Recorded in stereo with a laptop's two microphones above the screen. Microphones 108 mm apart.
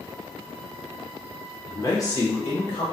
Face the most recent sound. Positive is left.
turn(degrees=40)  # may be behind; listen again after turning